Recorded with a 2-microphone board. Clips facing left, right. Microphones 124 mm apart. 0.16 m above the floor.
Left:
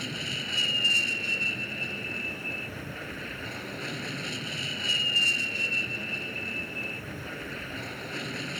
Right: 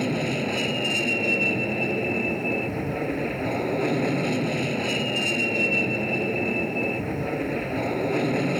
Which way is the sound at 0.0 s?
60° right (ahead or behind).